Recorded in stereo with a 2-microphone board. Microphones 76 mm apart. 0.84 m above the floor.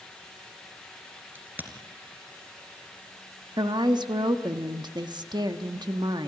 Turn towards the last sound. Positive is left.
turn(degrees=-65)  # may be behind; listen again after turning